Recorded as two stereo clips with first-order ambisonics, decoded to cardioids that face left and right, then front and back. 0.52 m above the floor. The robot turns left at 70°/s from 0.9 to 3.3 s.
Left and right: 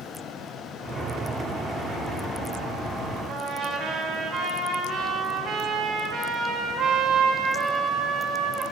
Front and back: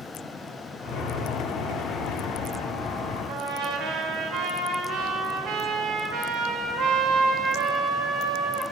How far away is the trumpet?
About 0.7 m.